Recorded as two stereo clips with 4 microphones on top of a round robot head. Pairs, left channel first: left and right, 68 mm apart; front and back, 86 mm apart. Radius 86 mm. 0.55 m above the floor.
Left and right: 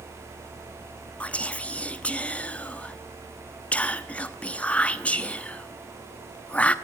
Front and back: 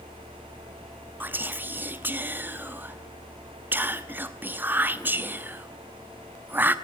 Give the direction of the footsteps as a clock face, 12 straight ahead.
I don't hear footsteps.